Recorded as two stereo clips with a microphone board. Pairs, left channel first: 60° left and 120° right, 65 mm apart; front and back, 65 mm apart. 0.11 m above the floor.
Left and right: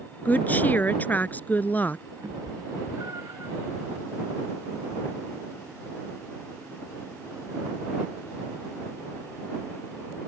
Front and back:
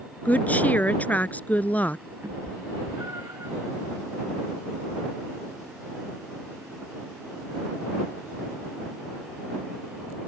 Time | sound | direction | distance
0.2 | a woman speaking | 35° left | ?
2.2 | a cat meowing | 145° right | ?